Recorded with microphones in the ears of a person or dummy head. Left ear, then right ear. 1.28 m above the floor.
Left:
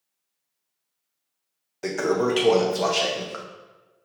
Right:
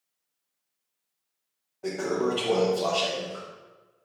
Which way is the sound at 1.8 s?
70° left (ahead or behind).